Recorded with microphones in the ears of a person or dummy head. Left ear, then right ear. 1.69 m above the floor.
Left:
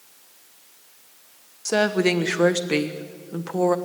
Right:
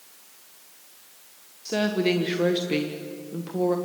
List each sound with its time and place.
1.6 s a woman speaking: 45° left (ahead or behind), 1.2 m